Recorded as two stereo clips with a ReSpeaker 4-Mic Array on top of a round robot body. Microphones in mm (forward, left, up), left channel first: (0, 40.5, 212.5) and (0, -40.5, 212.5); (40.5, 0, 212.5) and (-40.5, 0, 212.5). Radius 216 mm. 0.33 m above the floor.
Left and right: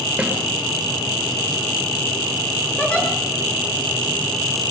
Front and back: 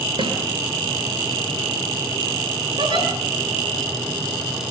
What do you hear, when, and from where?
0.2 s a snare drum: 170° right, 7 m
2.8 s a giggle: 165° left, 8 m